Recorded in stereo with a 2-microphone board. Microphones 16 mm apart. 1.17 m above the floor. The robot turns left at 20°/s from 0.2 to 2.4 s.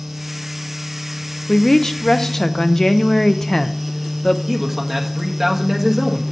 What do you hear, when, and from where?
1.5 s a woman speaking: 30° left (ahead or behind), 0.5 m
4.5 s a man speaking: centre (ahead or behind), 1.3 m